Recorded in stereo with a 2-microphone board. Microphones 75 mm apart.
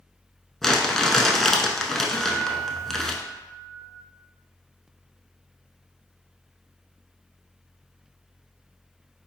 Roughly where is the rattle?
I don't hear a rattle.